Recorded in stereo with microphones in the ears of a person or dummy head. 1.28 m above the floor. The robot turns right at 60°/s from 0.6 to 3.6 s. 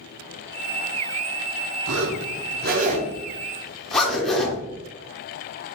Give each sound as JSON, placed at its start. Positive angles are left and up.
{"t": 1.9, "sound": "a zipper", "side_deg": -75, "distance_m": 1.0}